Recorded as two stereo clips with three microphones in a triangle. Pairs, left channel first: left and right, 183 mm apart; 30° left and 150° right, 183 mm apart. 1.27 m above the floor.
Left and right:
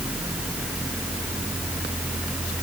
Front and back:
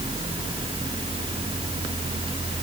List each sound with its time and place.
Only background noise.